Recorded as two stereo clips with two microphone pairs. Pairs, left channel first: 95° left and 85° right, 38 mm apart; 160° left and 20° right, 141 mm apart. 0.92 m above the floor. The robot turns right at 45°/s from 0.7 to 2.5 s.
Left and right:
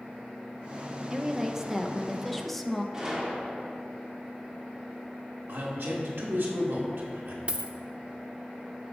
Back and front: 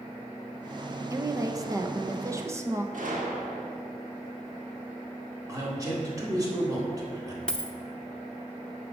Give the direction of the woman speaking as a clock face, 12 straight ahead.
2 o'clock.